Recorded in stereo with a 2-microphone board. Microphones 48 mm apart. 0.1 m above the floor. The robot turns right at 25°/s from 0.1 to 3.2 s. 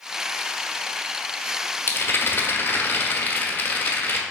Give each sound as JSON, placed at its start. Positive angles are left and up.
{"t": 1.9, "sound": "a rattle", "azimuth_deg": 80, "distance_m": 1.0}